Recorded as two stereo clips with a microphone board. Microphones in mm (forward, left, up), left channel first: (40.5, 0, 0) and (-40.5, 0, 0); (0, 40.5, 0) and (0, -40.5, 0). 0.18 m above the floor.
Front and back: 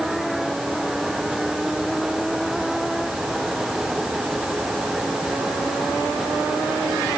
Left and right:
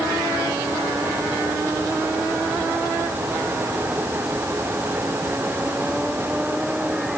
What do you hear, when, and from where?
Only background noise.